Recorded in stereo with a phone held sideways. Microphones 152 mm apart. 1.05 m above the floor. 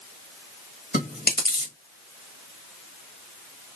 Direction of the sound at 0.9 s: 85° left.